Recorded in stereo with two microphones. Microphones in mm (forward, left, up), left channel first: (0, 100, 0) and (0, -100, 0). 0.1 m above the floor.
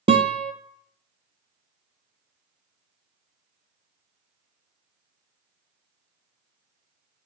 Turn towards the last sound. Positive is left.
turn(degrees=-30)  # may be behind; listen again after turning